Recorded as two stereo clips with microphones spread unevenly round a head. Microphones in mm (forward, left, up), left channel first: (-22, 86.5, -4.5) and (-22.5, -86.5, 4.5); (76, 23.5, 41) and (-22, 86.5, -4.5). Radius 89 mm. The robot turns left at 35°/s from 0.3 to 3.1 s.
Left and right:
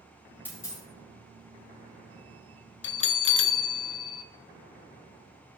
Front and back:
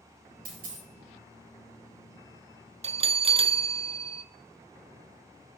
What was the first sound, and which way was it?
A dropped coin, 170° left.